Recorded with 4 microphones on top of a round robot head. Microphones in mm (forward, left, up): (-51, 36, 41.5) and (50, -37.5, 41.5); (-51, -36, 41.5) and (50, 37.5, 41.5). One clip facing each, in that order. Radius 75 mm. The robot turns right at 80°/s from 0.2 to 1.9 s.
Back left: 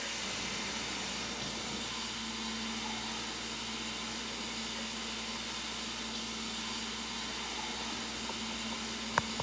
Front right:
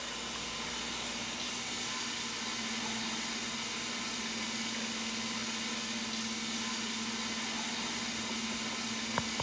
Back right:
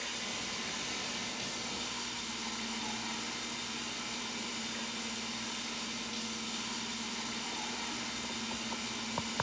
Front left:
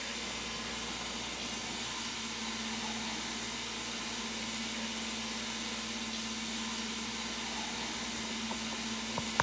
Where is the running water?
165° left, 8 m; by 9.4 s 55° right, 8 m.